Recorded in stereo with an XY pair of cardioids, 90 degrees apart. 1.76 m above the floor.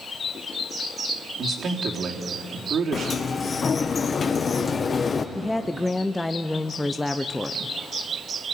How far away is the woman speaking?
About 0.8 m.